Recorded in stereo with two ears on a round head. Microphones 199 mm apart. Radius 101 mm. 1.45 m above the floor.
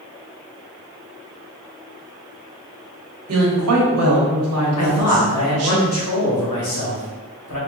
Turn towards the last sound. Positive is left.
turn(degrees=80)